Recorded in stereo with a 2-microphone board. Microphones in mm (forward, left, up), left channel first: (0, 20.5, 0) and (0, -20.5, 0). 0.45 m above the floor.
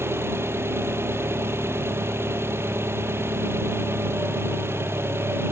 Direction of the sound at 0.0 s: 80° right.